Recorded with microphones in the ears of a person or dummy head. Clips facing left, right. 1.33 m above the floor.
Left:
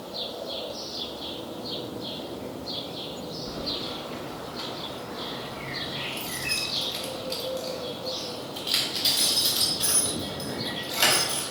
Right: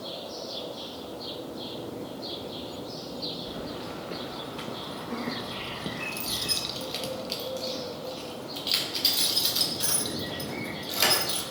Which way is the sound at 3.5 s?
5° right (ahead or behind).